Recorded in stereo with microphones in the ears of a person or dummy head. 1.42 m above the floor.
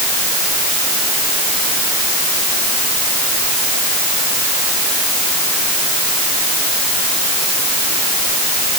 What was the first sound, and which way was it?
Only background noise.